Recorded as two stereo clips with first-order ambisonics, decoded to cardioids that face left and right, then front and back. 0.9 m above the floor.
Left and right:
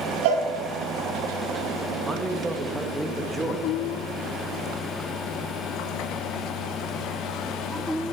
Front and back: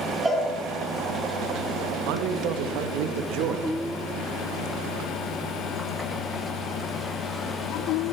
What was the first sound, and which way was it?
A cowbell, 90° right.